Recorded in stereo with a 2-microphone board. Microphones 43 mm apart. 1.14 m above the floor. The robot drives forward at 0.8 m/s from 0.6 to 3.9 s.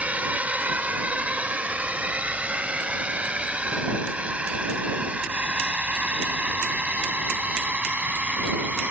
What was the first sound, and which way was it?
A drone, 35° right (ahead or behind).